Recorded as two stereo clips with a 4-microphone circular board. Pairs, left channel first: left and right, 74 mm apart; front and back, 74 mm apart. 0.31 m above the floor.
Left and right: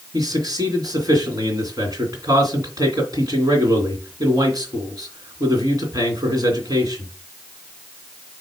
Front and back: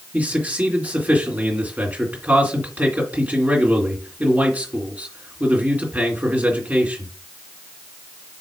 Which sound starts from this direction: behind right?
A man speaking, at 0.1 s.